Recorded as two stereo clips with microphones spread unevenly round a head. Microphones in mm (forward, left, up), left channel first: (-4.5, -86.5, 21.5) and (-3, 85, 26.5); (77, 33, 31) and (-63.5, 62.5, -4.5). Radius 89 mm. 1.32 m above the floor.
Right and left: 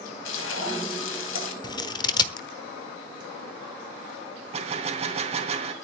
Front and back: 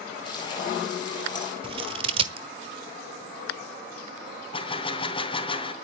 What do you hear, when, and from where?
0.2 s frying: 75° right, 4.5 m
1.6 s scissors: 140° right, 1.1 m
4.5 s a gunshot: 35° left, 3 m